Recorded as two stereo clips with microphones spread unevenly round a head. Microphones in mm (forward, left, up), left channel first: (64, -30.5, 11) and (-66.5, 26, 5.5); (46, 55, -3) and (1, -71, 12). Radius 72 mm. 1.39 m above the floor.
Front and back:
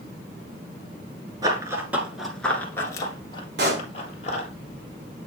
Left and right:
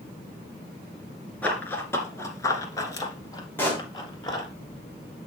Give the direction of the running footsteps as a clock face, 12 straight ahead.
7 o'clock.